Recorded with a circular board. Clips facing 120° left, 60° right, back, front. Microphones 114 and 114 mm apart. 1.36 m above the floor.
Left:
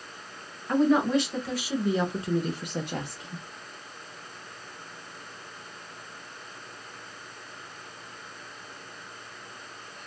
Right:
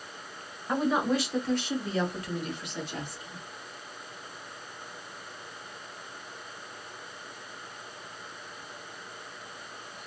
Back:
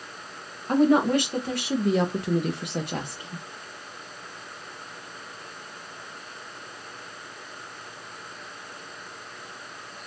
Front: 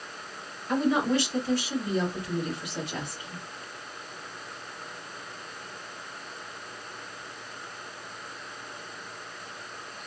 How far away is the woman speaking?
About 1.3 m.